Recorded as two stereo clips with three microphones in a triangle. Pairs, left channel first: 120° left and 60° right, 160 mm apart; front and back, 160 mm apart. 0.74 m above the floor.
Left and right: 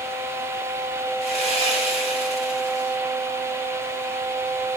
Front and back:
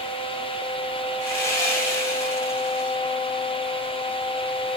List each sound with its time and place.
1.2 s sawing: 75° left, 2.5 m